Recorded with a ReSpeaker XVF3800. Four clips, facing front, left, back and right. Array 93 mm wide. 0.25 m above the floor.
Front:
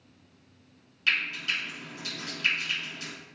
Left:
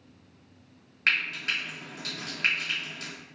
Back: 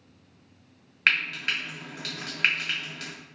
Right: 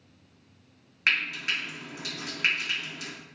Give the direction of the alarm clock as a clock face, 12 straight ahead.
No alarm clock in this recording.